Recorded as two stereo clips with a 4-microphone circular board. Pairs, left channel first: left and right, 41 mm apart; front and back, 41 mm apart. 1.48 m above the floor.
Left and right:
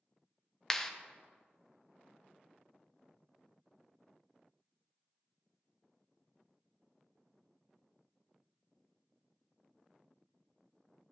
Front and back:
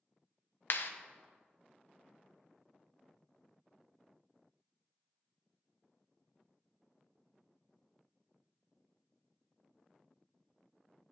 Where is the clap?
15° left, 0.7 m.